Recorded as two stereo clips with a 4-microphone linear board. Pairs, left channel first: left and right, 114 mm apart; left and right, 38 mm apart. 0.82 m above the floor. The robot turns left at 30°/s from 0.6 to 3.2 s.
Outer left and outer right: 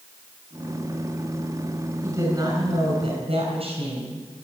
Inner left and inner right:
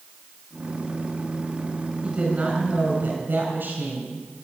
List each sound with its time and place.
2.0 s a woman speaking: 25° right, 5 m; by 4.2 s 60° right, 5 m